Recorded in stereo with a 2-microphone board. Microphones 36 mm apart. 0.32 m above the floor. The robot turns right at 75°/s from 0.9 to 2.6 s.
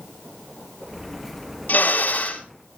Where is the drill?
90° left, 3 m; by 2.4 s 145° left, 3 m.